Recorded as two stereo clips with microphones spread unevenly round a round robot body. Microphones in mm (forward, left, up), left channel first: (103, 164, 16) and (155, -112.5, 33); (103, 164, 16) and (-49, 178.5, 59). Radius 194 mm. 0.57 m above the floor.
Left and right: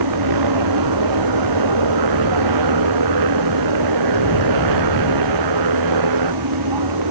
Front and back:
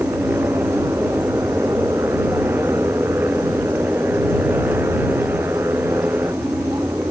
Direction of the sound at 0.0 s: 100° right.